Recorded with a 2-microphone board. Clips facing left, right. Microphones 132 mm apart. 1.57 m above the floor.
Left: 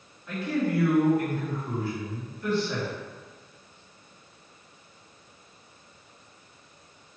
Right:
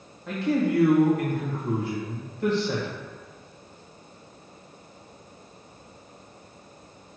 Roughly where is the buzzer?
No buzzer in this recording.